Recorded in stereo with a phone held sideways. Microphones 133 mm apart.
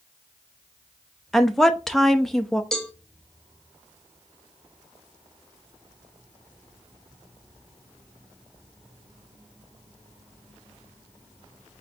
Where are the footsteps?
I don't hear footsteps.